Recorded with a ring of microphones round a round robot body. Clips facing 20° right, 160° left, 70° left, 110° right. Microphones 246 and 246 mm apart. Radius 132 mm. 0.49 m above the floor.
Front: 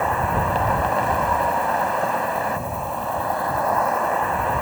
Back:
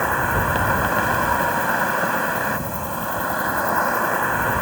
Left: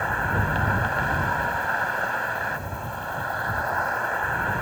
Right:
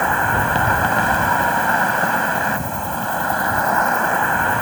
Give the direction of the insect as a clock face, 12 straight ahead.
4 o'clock.